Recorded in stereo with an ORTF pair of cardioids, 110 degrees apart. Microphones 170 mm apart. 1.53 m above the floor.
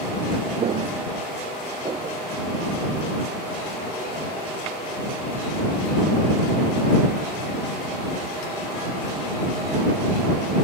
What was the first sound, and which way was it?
Footsteps, 45° right.